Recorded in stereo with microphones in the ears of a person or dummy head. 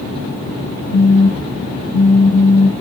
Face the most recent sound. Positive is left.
turn(degrees=-30)  # may be behind; listen again after turning